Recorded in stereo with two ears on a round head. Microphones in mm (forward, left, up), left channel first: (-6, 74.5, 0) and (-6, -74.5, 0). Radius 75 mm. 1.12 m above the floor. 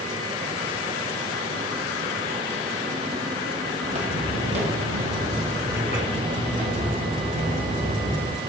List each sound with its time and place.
3.8 s footsteps: 45° right (ahead or behind), 1.6 m; by 8.4 s 35° right (ahead or behind), 4.5 m